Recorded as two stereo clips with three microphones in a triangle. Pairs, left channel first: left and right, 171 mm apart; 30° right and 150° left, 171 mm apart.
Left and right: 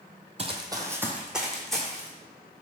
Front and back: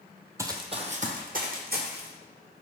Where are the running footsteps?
135° right, 0.5 m; by 2.1 s 175° left, 1.3 m.